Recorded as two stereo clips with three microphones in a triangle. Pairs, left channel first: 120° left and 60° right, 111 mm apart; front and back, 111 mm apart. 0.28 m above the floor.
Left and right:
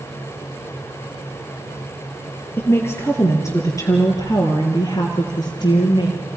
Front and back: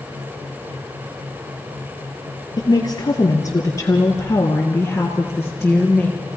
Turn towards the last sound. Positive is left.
turn(degrees=90)